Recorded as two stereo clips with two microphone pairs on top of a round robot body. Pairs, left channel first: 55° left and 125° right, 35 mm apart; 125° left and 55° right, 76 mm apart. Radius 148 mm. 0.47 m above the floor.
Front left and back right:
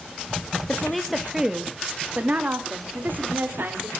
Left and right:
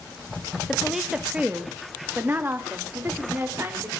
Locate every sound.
0.7 s a woman speaking: 50° left, 1.3 m; by 3.9 s 115° right, 3 m